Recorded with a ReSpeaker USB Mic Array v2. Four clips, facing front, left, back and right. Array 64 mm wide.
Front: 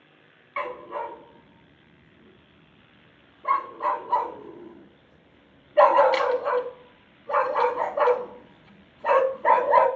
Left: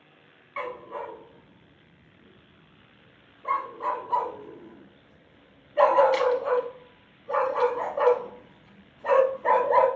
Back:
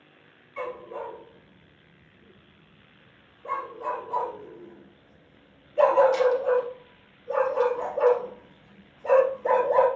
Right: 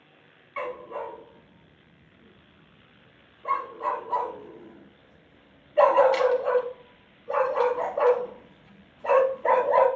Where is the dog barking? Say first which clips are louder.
Right 1 dB, front 3 dB; 5° left, 0.7 m.